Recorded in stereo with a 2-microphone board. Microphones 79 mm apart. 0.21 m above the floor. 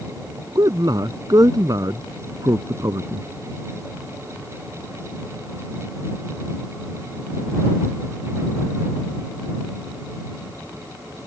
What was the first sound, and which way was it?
A man speaking, 55° right (ahead or behind).